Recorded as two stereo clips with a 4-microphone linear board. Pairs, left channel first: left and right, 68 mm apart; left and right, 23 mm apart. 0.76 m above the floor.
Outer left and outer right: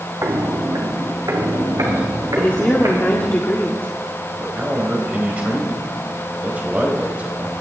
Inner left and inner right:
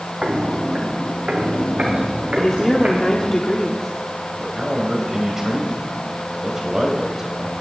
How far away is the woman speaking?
About 1.5 m.